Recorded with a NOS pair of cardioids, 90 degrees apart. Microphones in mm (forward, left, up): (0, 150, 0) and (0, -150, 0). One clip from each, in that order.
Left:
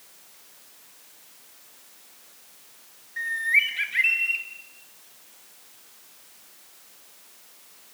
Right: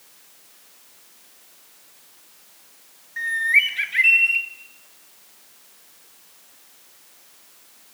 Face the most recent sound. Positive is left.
turn(degrees=-20)